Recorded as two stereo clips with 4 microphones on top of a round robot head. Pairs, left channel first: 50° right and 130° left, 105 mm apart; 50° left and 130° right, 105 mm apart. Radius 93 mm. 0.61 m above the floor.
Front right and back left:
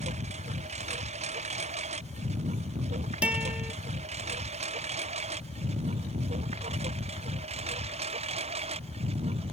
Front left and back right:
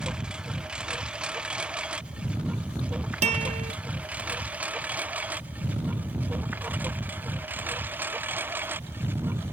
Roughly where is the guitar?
Behind right.